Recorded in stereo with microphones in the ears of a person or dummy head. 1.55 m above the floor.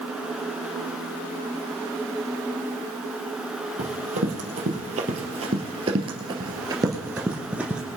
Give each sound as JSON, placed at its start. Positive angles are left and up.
{"t": 3.8, "sound": "running footsteps", "side_deg": -40, "distance_m": 3.0}